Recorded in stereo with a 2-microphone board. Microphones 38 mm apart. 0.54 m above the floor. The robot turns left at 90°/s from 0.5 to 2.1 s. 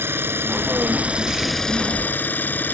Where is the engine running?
95° right; by 2.7 s 125° left.